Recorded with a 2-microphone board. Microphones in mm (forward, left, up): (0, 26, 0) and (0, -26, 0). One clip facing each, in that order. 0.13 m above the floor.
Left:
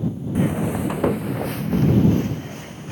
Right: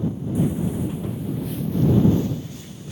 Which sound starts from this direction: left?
Footsteps, at 0.3 s.